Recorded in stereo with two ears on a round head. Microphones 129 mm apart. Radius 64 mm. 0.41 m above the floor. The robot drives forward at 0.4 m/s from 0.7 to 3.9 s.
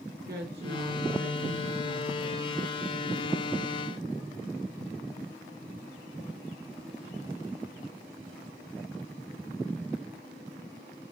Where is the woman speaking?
80° right, 5 m.